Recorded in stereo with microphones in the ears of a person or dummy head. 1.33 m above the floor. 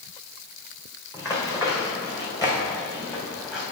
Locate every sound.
1.1 s running footsteps: 15° left (ahead or behind), 4 m